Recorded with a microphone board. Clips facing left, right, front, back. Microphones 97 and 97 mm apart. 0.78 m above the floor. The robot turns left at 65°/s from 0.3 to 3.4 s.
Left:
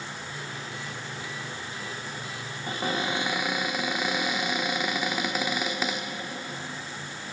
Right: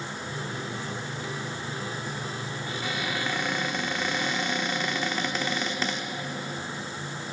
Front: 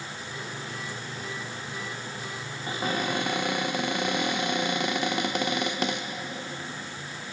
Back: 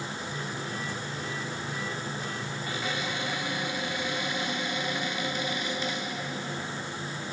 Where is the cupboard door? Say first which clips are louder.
Left 5 dB, front 6 dB; 55° left, 0.7 m; by 6.1 s 10° left, 0.7 m.